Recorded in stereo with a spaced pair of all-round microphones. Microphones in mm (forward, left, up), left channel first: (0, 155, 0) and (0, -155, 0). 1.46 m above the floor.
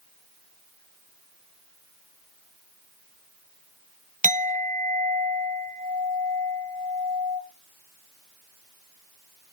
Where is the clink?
25° right (ahead or behind), 0.6 m.